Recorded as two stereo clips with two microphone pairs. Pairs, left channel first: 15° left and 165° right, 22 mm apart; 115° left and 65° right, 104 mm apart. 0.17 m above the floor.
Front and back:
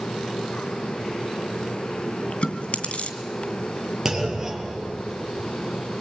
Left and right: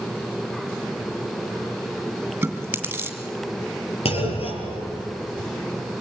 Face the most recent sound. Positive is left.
turn(degrees=130)